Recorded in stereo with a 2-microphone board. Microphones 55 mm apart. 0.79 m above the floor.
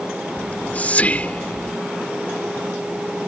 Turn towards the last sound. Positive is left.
turn(degrees=30)  # may be behind; listen again after turning